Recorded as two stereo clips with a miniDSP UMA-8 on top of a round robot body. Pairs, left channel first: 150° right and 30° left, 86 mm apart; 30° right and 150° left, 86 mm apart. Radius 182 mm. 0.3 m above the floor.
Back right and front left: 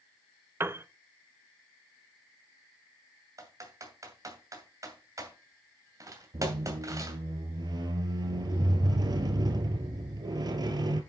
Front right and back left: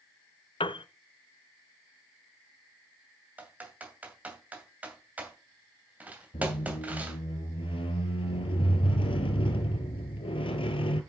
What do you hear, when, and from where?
0.6 s a piano: 35° right, 0.7 m
3.4 s typing on a keyboard: 80° left, 2.5 m
6.3 s a squeak: 15° right, 1.0 m